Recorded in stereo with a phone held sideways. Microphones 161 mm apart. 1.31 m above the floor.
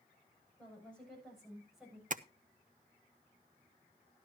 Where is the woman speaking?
10° left (ahead or behind), 8.5 m; by 2.0 s 5° right (ahead or behind), 8 m.